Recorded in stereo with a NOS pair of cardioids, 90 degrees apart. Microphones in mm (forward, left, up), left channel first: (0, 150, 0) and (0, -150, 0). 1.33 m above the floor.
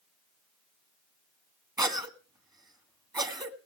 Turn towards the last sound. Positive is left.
turn(degrees=-15)